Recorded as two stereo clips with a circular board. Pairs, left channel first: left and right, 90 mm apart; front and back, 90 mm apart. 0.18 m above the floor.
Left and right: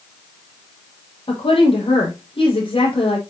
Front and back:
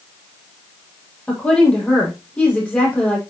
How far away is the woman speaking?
About 7 m.